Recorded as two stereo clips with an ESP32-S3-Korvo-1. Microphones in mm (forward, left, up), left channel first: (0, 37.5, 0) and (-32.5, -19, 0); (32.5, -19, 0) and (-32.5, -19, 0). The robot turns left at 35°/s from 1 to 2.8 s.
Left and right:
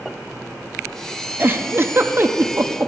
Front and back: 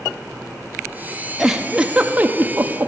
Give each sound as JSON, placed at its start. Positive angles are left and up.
{"t": 1.4, "sound": "a giggle", "azimuth_deg": -95, "distance_m": 0.5}